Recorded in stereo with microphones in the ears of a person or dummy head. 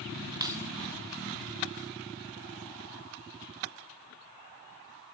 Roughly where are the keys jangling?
Right.